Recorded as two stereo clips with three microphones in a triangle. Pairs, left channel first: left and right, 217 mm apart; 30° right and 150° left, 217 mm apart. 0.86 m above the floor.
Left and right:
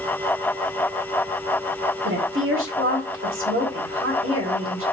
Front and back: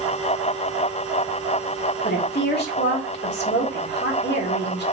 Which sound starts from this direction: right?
A woman speaking, at 2.0 s.